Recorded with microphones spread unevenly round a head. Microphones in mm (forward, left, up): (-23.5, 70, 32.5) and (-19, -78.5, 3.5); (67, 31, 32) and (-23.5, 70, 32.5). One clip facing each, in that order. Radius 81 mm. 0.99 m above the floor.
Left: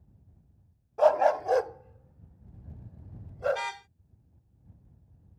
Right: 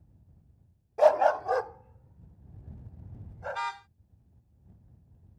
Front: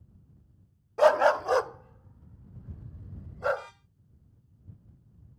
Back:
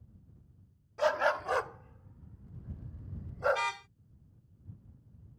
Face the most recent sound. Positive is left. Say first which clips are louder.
# even, back 1 dB
turn(degrees=150)